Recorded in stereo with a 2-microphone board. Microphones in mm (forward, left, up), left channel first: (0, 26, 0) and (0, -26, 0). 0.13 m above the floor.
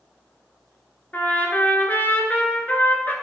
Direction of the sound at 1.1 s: 35° left (ahead or behind).